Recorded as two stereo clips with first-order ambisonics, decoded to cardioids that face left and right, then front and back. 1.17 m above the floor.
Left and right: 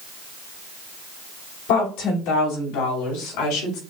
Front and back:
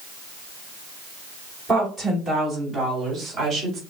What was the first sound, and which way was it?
A woman speaking, 90° left.